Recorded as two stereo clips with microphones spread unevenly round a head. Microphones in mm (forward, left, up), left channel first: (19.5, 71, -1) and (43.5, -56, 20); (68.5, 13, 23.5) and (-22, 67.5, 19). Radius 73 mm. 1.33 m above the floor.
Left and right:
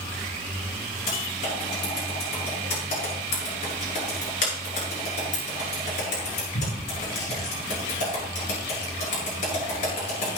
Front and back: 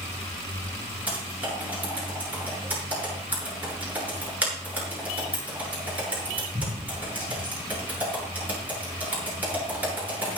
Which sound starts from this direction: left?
Typing on a keyboard, at 1.1 s.